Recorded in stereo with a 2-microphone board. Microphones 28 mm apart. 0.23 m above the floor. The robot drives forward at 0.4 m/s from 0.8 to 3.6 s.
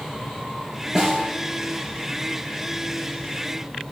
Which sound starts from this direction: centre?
A snare drum, at 0.9 s.